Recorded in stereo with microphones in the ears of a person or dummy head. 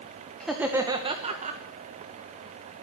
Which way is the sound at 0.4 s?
5° left (ahead or behind).